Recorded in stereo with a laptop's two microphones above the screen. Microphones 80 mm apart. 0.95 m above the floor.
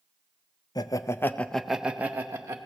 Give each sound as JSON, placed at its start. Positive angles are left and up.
{"t": 0.8, "sound": "laughter", "side_deg": 55, "distance_m": 0.6}